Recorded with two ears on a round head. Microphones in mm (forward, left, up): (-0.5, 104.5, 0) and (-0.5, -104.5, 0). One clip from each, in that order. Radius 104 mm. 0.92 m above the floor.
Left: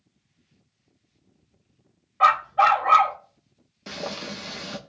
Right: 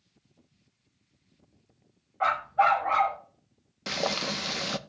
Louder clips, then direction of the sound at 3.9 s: Right 4 dB; 30° right (ahead or behind).